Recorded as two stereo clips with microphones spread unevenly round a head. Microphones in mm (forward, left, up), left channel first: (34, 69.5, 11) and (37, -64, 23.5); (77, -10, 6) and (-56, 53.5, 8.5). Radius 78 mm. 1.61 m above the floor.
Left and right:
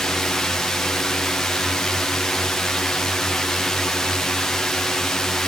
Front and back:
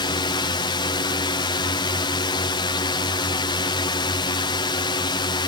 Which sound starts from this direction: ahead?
A drone, at 0.0 s.